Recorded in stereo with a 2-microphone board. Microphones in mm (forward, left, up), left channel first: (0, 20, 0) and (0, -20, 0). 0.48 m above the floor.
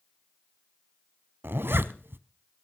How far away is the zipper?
About 0.8 m.